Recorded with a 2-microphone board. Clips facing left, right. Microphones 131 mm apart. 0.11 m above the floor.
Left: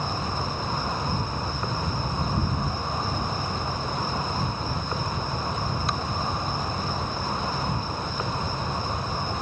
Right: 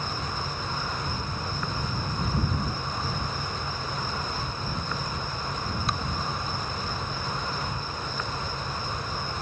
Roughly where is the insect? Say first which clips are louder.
Left 4 dB; left.